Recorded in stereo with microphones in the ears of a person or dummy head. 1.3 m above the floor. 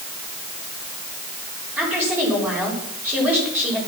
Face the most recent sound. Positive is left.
turn(degrees=-10)  # may be behind; listen again after turning